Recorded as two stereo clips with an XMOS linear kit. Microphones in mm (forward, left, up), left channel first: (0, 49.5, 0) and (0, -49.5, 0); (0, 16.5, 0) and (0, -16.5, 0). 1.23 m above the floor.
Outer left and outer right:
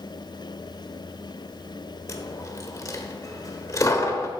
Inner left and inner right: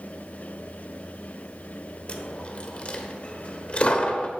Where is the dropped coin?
35° left (ahead or behind), 1.2 m.